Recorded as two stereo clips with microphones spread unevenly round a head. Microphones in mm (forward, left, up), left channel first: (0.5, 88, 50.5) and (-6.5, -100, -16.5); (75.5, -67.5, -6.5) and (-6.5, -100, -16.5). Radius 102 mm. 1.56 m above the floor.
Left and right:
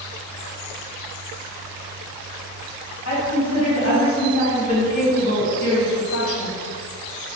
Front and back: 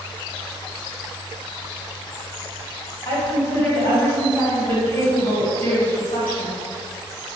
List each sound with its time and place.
3.0 s a woman speaking: 75° left, 1.9 m